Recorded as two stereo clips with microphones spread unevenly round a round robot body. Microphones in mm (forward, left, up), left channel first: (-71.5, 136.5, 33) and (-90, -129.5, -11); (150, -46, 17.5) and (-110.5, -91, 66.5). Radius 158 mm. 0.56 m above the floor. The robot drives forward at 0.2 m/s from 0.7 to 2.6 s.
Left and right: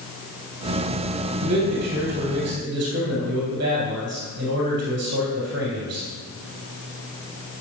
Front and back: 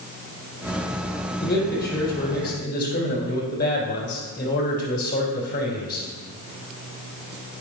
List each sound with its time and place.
1.4 s a man speaking: 40° right, 3.5 m